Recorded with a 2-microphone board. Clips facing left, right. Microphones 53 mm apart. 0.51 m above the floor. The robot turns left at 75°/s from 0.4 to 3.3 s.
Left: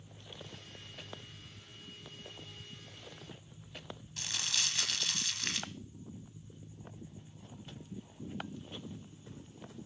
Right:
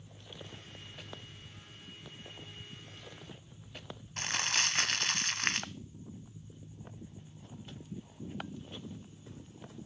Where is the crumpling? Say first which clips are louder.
Right 6 dB; 45° right (ahead or behind), 1.2 m.